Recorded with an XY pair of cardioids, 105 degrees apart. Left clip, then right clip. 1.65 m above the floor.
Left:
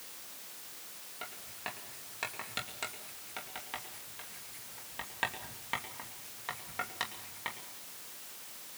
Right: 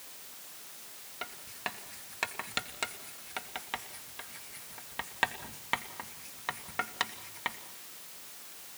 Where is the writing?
35° right, 2.5 m.